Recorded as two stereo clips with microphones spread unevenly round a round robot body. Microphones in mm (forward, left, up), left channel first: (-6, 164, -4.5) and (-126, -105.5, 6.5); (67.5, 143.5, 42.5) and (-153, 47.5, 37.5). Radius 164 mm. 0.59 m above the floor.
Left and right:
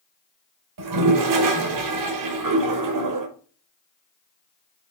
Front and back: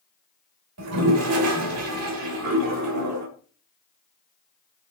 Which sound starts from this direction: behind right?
A toilet flushing, at 0.8 s.